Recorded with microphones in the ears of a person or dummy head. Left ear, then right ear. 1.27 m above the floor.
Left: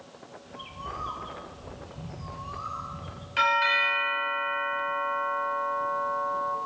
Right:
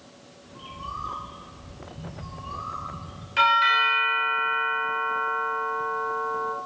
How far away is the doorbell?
About 1.4 m.